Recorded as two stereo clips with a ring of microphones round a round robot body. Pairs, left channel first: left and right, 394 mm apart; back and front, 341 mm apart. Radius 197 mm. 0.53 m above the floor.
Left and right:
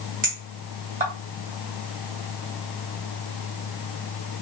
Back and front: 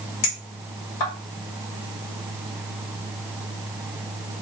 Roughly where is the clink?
Behind.